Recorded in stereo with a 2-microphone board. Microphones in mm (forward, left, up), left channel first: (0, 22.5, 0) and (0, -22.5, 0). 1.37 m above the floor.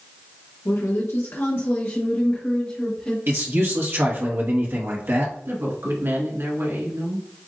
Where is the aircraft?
No aircraft in this recording.